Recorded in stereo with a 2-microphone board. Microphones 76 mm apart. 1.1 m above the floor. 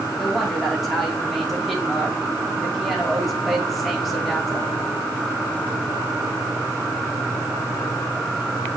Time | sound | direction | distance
0.2 | a woman speaking | centre (ahead or behind) | 2.5 m